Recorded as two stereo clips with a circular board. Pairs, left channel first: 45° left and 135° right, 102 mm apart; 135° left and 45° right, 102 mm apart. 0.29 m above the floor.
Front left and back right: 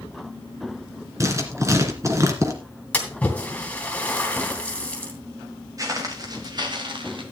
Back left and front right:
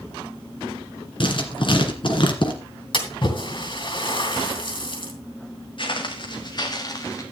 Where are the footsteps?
170° left, 3 m; by 7.2 s 170° right, 2.5 m.